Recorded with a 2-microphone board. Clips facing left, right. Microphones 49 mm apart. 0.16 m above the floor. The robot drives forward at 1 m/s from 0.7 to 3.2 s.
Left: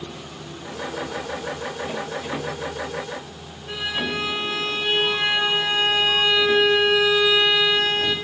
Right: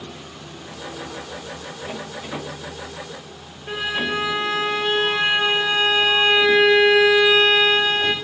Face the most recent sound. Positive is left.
turn(degrees=-45)  # may be behind; listen again after turning